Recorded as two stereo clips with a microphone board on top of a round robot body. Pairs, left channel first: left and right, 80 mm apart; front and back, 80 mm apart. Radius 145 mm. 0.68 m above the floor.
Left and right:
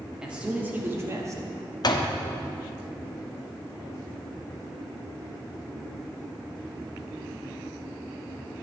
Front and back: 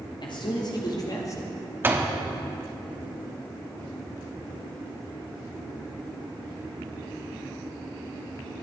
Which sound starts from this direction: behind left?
A door slam, at 1.8 s.